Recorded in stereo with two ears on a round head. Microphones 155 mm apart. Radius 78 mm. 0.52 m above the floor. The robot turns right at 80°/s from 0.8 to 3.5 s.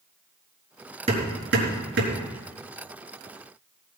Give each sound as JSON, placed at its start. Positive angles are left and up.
{"t": 1.1, "sound": "hammering", "side_deg": -35, "distance_m": 4.5}